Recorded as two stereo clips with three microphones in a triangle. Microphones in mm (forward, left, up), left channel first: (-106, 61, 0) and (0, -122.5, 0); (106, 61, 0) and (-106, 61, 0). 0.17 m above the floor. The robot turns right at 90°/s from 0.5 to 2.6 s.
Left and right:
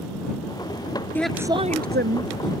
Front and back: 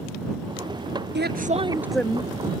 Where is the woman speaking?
160° right; by 2.5 s 40° right.